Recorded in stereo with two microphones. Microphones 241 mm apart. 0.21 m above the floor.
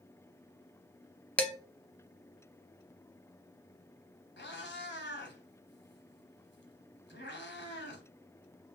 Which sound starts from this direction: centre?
Dishes clattering, at 1.4 s.